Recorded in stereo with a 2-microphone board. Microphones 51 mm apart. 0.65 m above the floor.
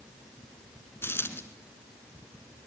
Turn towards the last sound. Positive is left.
turn(degrees=50)  # may be behind; listen again after turning